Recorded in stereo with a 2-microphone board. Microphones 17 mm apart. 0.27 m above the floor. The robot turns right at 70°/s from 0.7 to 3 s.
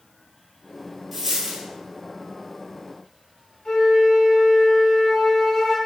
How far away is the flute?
About 1.0 m.